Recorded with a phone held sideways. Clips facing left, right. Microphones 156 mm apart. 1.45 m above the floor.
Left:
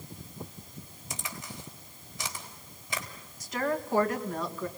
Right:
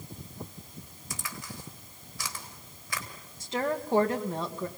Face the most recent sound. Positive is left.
turn(degrees=-25)  # may be behind; listen again after turning